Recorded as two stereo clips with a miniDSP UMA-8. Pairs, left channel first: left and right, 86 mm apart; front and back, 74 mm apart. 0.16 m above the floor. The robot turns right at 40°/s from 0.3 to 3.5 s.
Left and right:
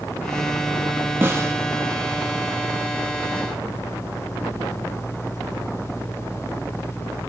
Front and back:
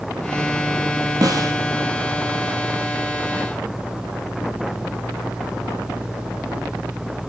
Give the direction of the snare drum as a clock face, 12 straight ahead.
5 o'clock.